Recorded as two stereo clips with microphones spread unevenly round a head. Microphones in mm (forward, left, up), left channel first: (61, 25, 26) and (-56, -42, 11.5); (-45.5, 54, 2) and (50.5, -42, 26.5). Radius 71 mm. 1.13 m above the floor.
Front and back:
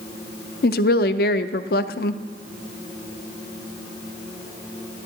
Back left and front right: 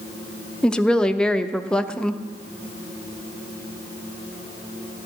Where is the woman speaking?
50° left, 0.5 m.